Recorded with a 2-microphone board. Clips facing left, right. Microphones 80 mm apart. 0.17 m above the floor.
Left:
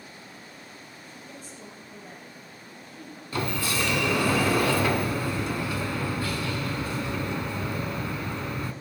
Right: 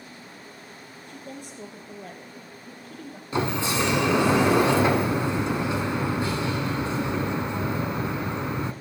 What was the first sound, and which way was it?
A woman speaking, 70° right (ahead or behind).